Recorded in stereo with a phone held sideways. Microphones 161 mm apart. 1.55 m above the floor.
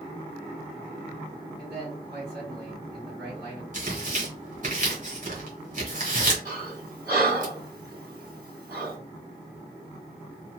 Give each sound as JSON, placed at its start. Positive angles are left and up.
{"t": 1.6, "sound": "a man speaking", "side_deg": -30, "distance_m": 2.0}
{"t": 3.7, "sound": "tearing paper", "side_deg": -50, "distance_m": 1.3}
{"t": 6.5, "sound": "breathing", "side_deg": -25, "distance_m": 2.5}